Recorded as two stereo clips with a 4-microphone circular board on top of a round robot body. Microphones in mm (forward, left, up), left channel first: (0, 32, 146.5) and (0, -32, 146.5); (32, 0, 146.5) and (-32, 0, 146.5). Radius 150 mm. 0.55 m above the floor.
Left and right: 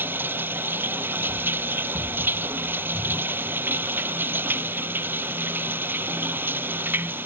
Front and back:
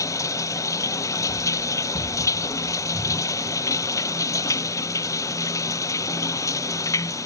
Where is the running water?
35° right.